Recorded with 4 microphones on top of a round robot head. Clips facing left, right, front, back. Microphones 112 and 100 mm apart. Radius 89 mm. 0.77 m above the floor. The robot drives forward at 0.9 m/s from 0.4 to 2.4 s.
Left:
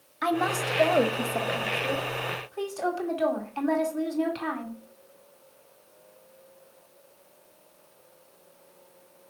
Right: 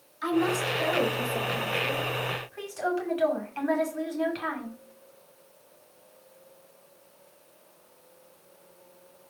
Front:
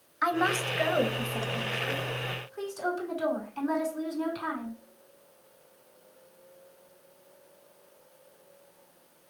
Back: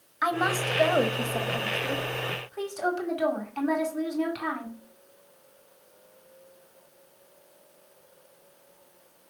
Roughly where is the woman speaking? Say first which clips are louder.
Right 1 dB, back 1 dB; left.